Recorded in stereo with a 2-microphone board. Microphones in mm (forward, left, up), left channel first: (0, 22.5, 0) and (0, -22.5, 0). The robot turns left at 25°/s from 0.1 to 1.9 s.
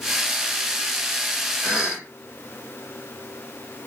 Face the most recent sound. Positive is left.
turn(degrees=65)  # may be behind; listen again after turning